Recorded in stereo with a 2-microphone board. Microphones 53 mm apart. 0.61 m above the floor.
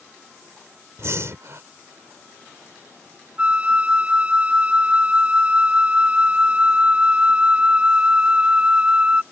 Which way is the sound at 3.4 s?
25° right (ahead or behind).